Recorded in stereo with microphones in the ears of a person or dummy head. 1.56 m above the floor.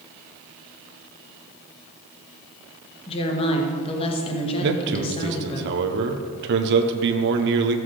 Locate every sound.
3.1 s a woman speaking: 30° left (ahead or behind), 1.7 m
4.6 s a man speaking: 65° right (ahead or behind), 0.9 m